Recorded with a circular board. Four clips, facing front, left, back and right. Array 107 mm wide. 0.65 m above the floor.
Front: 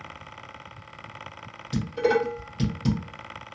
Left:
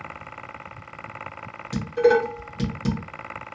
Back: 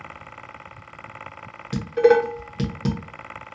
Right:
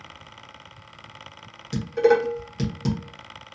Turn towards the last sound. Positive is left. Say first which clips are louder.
# even, back 7 dB
turn(degrees=-170)